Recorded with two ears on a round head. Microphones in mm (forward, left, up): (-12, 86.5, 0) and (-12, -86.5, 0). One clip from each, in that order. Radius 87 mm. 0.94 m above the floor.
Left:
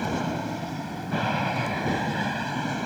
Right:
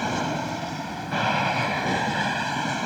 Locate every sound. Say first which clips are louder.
0.0 s an aircraft: right 3 dB; 35° right (ahead or behind)